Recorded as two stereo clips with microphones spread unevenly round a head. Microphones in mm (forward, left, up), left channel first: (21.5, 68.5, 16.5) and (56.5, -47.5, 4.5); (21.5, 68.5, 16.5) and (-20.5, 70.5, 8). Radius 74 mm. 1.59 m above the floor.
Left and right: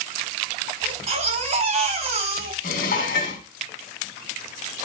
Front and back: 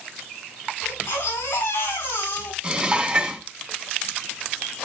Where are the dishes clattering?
110° left, 2.5 m.